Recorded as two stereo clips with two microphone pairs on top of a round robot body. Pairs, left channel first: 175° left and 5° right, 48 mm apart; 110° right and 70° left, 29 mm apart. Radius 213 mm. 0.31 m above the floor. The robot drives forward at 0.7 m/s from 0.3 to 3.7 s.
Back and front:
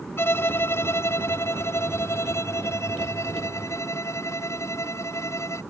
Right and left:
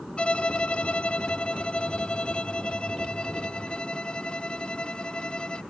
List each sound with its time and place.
0.2 s a violin: 155° right; by 5.6 s 165° right